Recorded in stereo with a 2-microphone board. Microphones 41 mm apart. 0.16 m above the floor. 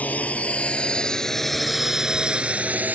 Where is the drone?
40° left (ahead or behind); by 3.0 s 45° right (ahead or behind).